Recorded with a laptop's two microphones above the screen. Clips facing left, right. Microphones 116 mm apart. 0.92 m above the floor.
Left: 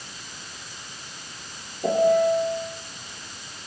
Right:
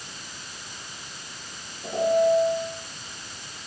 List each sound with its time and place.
1.8 s a piano: 70° left (ahead or behind), 8 m